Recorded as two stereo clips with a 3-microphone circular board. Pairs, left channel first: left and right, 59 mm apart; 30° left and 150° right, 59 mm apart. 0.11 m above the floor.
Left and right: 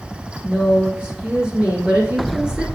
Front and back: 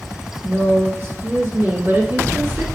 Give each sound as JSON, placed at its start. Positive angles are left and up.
{"t": 0.5, "sound": "a woman speaking", "azimuth_deg": -155, "distance_m": 1.9}